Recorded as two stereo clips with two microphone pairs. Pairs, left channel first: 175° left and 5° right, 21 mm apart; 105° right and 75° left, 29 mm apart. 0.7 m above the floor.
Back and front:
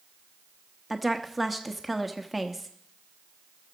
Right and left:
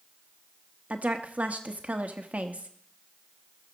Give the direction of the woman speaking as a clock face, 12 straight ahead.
9 o'clock.